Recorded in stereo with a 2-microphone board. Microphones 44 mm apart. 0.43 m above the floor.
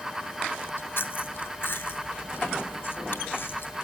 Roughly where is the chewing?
Left.